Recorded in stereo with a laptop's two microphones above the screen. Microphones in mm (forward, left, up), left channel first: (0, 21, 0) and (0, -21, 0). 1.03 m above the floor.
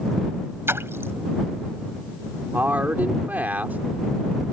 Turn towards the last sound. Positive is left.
turn(degrees=-55)  # may be behind; listen again after turning